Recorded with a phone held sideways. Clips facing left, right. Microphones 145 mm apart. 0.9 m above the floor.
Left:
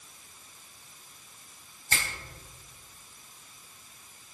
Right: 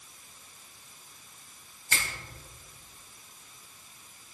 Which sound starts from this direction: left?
A finger snap, at 1.9 s.